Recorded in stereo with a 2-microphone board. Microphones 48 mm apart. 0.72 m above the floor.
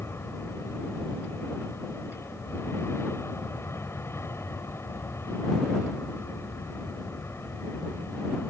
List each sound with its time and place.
0.0 s an aircraft: 60° left (ahead or behind)